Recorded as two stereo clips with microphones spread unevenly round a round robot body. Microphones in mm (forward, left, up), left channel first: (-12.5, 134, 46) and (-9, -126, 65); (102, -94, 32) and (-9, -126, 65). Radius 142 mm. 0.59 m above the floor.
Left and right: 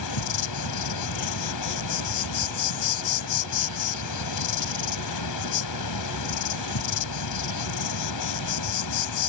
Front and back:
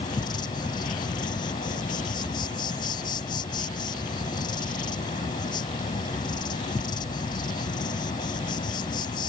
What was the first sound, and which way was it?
An insect, 80° left.